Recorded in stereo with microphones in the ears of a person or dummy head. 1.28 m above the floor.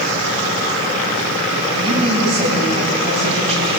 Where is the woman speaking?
35° right (ahead or behind), 9 m.